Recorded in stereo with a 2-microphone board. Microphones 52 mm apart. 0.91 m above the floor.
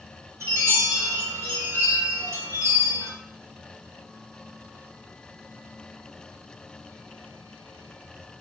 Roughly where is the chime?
Right.